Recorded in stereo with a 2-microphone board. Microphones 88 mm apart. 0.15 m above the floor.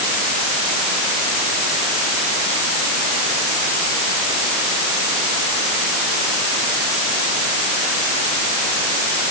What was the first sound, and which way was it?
Only background noise.